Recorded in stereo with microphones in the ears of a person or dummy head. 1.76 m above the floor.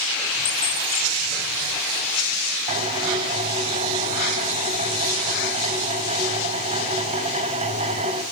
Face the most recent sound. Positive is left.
turn(degrees=-35)  # may be behind; listen again after turning